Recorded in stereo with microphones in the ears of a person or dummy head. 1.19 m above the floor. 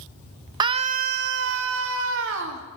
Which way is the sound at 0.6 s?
25° right (ahead or behind).